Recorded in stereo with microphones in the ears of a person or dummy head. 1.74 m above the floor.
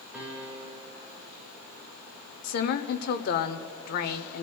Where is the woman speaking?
55° left (ahead or behind), 0.8 m.